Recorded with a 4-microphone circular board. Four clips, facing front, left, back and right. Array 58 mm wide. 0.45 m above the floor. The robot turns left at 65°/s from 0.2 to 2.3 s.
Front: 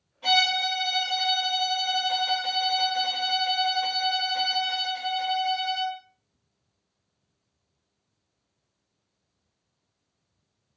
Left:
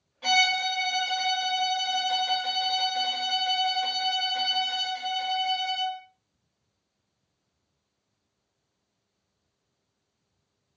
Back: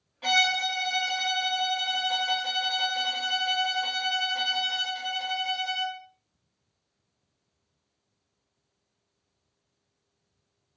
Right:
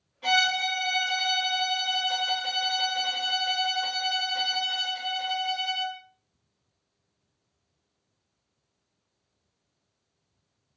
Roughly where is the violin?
Behind left.